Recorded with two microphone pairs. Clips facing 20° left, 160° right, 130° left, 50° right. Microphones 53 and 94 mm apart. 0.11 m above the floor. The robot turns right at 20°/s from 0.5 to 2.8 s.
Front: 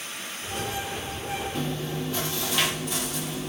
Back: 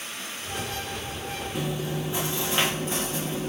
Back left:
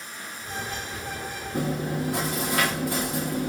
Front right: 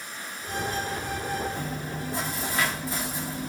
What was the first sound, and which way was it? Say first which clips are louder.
Chewing: even, back left 6 dB; 120° left.